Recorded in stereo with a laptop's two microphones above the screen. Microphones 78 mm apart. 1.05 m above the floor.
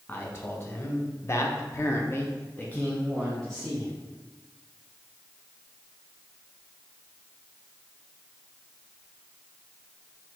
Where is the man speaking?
30° left (ahead or behind), 1.2 m; by 3.9 s centre (ahead or behind), 1.0 m.